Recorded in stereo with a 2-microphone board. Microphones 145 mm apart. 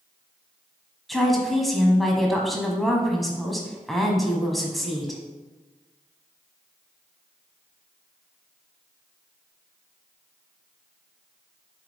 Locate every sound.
1.1 s a woman speaking: centre (ahead or behind), 1.1 m